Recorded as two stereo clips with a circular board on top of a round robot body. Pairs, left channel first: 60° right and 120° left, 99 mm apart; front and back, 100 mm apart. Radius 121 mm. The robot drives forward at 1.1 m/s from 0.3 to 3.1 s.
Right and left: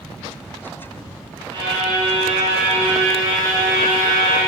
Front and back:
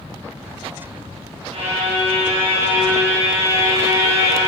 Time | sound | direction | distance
1.5 | a violin | 160° left | 2 m